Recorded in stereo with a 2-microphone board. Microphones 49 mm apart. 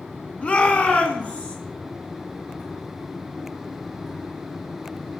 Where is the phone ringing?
No phone ringing in this recording.